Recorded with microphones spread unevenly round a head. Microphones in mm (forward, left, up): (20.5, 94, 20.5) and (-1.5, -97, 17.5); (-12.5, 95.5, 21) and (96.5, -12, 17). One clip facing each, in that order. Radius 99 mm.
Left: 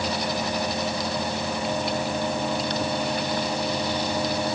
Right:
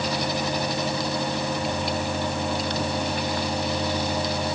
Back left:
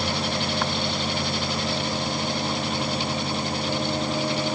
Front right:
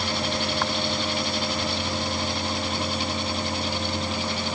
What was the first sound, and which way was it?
Only background noise.